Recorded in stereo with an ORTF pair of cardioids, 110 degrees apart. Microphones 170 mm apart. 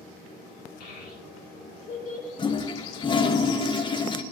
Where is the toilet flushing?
30° left, 0.7 m.